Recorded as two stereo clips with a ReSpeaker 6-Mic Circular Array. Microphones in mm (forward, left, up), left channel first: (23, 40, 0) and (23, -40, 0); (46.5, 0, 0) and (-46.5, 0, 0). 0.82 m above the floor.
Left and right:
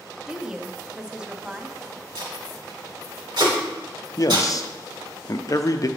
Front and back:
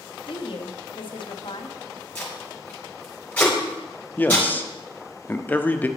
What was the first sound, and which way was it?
A woman speaking, 10° right.